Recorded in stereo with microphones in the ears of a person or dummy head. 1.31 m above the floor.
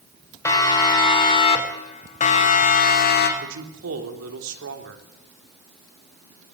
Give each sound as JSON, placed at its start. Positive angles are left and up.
{"t": 0.5, "sound": "a siren", "side_deg": 20, "distance_m": 3.5}
{"t": 3.4, "sound": "a man speaking", "side_deg": -75, "distance_m": 3.5}